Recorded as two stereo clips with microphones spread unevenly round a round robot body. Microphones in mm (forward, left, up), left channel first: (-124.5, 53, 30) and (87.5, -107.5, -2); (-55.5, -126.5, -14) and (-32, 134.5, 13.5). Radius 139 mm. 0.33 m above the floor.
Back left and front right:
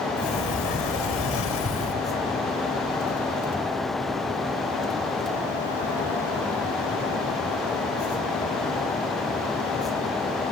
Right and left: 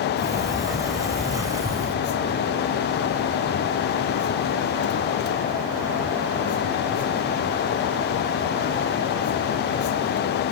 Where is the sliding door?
165° left, 2 m.